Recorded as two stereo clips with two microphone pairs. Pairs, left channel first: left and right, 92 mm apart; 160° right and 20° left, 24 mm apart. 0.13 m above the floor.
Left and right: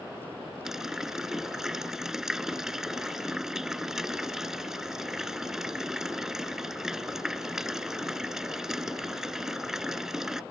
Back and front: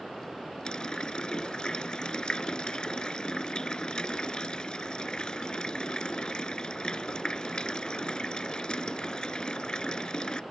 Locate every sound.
0.7 s a running tap: 170° right